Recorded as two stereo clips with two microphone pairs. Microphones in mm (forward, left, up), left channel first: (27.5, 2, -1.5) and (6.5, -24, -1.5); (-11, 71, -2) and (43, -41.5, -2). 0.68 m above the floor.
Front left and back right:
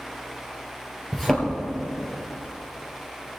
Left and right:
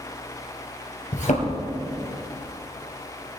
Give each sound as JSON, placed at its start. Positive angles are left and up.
{"t": 1.1, "sound": "a thud", "azimuth_deg": 130, "distance_m": 2.5}